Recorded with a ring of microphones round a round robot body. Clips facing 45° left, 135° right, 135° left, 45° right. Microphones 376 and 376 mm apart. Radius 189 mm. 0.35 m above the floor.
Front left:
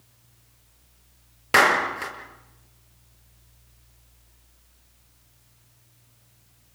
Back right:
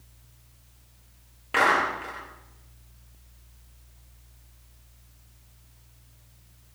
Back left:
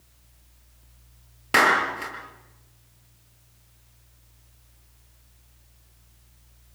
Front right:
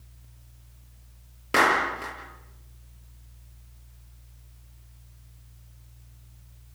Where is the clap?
60° left, 6.5 m.